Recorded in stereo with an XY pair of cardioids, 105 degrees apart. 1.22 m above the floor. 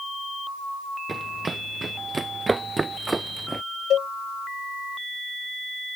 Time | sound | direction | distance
1.1 | running footsteps | 25° right | ?
3.9 | a cowbell | 65° left | ?